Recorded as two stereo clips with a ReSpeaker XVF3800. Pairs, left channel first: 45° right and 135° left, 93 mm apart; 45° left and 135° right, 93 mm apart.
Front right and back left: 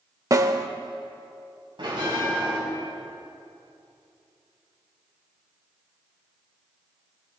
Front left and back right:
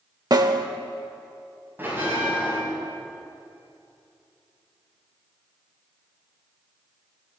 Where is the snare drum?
175° right, 0.8 m.